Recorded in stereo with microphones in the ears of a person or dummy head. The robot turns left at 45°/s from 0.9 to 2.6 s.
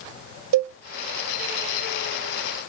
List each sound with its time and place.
0.5 s a cowbell: 75° right (ahead or behind), 0.5 m